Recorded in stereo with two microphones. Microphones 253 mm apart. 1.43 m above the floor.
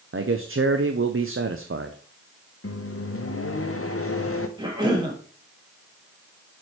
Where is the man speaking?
55° right (ahead or behind), 0.6 m.